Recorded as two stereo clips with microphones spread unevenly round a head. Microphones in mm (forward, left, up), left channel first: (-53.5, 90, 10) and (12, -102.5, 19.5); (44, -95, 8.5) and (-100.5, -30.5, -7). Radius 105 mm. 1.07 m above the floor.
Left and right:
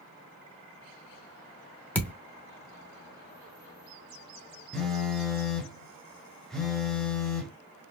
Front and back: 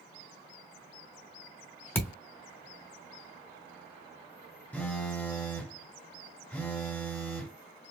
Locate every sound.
1.9 s a thud: 25° left, 0.8 m
4.7 s a phone buzzing: 15° left, 0.9 m